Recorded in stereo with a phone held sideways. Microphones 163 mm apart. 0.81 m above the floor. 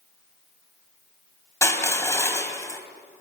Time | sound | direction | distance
1.6 | crushing | 15° left (ahead or behind) | 3.5 m